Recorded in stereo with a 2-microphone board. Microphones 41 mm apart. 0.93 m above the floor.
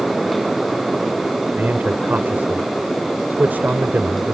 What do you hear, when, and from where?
1.6 s a man speaking: 55° right (ahead or behind)